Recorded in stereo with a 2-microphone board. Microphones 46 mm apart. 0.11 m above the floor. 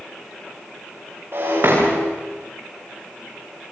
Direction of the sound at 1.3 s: 60° right (ahead or behind).